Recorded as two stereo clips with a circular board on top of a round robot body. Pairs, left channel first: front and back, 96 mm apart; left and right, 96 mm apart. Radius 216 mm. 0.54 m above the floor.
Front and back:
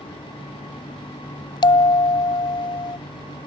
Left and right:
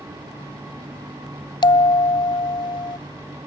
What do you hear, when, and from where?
1.6 s a bell: 45° left